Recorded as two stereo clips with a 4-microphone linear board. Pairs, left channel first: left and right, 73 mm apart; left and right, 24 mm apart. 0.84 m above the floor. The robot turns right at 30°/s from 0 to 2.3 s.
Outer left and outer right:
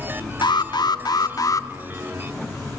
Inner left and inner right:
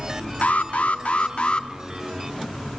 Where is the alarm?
95° left, 1.5 m; by 1.7 s 135° left, 1.5 m.